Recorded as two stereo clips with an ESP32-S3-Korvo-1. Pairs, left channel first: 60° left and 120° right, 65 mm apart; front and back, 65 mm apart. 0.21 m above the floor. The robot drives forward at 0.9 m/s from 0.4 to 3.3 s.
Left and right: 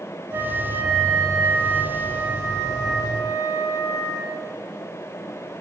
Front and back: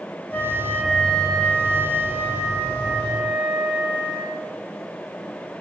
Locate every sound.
0.3 s a flute: 65° right, 2.5 m; by 4.5 s 130° right, 3 m